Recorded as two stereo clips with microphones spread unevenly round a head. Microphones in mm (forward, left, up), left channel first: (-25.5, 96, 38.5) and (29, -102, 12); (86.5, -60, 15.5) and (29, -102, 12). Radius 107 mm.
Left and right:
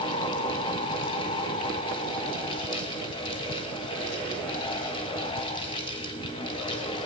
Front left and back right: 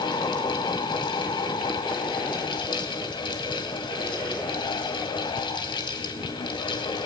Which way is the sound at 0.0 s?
35° left.